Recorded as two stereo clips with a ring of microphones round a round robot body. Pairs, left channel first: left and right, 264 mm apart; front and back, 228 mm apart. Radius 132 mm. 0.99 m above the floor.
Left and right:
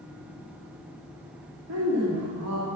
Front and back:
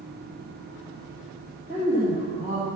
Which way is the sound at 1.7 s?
120° right.